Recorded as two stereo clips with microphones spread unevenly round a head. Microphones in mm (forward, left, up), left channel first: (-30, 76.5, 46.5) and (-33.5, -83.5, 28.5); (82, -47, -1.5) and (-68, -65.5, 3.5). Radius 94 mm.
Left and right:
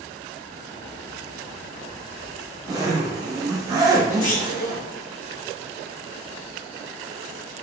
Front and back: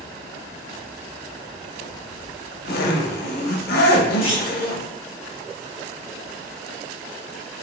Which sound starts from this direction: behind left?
A clunk, at 4.2 s.